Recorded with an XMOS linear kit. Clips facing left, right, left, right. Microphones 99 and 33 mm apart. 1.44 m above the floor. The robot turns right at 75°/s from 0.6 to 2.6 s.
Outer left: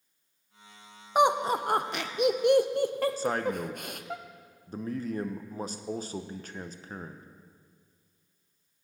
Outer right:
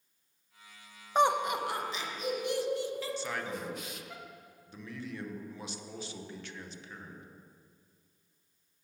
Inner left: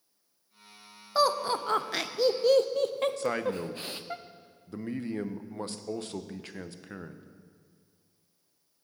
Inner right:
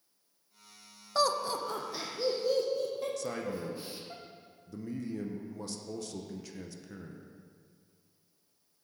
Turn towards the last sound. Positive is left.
turn(degrees=45)  # may be behind; listen again after turning